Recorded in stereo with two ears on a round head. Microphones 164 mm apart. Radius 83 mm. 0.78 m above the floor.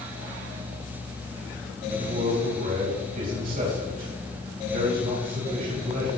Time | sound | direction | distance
1.9 | a man speaking | 50° right (ahead or behind) | 4 m